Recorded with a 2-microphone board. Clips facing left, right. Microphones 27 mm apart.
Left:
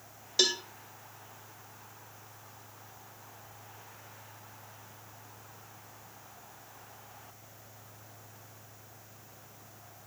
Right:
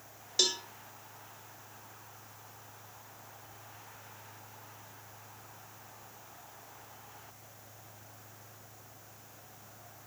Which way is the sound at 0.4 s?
15° left (ahead or behind).